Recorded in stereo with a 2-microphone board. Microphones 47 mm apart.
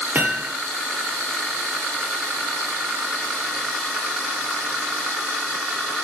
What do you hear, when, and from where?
0.1 s hammering: 35° right (ahead or behind), 3 m